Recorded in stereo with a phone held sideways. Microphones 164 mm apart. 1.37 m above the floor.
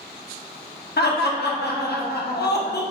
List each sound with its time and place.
1.0 s laughter: 85° left, 0.5 m